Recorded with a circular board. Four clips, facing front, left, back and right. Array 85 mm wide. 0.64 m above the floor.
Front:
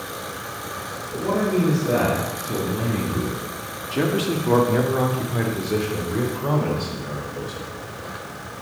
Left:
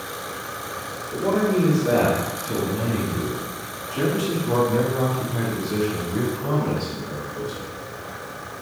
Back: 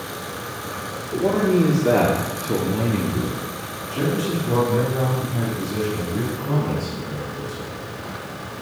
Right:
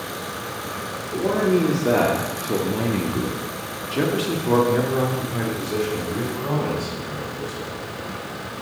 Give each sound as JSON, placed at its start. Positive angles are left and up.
{"t": 1.1, "sound": "a man speaking", "azimuth_deg": -160, "distance_m": 2.0}